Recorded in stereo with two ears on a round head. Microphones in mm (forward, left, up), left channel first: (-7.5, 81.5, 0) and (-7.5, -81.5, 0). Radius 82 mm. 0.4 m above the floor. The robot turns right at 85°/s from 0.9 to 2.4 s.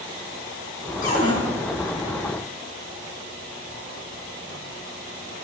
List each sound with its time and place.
1.0 s a cupboard door: 45° left (ahead or behind), 5.5 m; by 1.4 s 20° left (ahead or behind), 5.5 m